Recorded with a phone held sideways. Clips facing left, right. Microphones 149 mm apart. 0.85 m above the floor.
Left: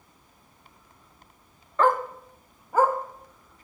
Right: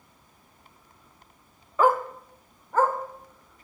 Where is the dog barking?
10° right (ahead or behind), 0.6 m; by 3.0 s 15° left (ahead or behind), 1.1 m.